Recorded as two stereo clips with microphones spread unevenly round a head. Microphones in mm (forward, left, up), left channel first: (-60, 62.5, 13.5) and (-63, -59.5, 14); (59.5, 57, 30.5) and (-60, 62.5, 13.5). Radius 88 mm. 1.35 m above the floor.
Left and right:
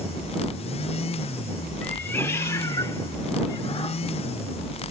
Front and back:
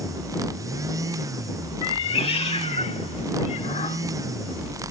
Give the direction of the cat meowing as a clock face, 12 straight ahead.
12 o'clock.